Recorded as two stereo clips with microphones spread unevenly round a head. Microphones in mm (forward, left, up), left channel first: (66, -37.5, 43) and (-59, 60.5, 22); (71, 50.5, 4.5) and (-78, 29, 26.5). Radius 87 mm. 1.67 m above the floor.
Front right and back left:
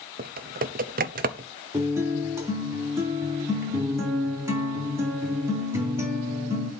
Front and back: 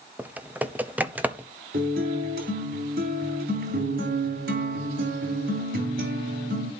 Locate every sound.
0.2 s typing on a keyboard: 110° left, 0.9 m
1.7 s a guitar: 140° right, 3 m